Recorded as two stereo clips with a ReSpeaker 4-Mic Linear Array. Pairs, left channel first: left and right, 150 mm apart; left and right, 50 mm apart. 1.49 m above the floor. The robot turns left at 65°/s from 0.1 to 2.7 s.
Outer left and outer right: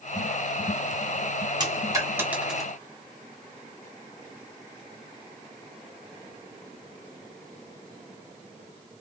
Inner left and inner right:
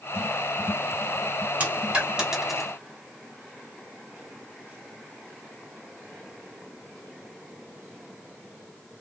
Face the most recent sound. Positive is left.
turn(degrees=0)  # may be behind; listen again after turning